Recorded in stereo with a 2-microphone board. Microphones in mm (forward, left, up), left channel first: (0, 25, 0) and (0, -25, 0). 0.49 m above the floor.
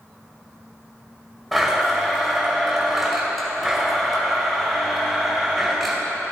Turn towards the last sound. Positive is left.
turn(degrees=0)  # may be behind; listen again after turning